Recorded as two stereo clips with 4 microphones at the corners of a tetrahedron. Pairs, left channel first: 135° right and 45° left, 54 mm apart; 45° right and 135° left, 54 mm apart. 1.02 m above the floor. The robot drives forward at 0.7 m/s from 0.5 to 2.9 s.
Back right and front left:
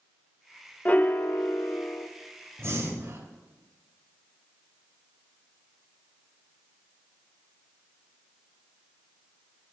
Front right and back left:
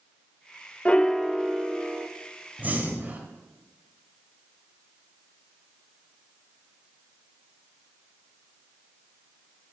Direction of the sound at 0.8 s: 95° right.